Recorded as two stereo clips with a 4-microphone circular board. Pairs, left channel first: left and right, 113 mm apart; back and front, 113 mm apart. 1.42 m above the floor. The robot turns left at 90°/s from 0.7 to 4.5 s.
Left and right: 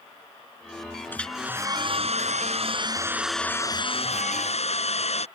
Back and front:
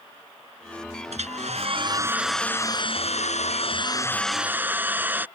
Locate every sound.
1.1 s a hair dryer: 20° left; by 5.3 s 75° left